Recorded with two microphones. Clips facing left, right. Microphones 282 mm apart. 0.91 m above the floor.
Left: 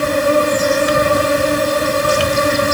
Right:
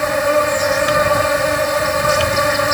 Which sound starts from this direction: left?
An insect, at 0.0 s.